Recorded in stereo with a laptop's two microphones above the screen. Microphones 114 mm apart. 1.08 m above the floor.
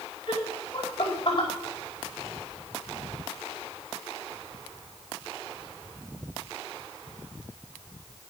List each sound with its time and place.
0.3 s laughter: 40° left (ahead or behind), 4.5 m